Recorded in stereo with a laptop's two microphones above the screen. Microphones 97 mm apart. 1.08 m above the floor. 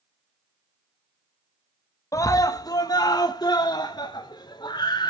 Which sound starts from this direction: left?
A scream, at 2.1 s.